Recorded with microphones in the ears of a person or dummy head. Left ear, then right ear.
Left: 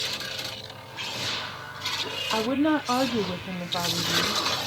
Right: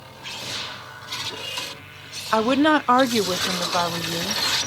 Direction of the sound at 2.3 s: 70° right (ahead or behind).